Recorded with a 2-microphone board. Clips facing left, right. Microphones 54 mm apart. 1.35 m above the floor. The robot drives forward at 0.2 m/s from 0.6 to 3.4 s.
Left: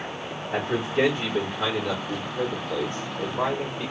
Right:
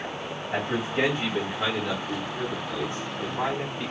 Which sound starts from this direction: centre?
A man speaking, at 0.5 s.